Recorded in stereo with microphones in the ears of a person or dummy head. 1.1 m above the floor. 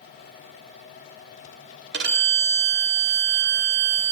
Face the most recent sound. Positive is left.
turn(degrees=-55)  # may be behind; listen again after turning